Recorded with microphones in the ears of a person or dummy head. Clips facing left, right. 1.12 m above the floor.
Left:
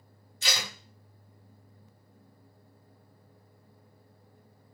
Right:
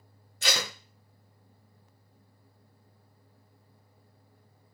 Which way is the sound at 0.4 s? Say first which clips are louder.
Right 4 dB; 45° right (ahead or behind).